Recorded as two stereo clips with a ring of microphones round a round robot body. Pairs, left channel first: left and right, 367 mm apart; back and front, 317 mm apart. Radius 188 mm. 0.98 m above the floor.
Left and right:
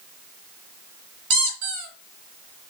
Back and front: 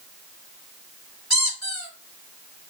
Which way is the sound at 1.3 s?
90° right.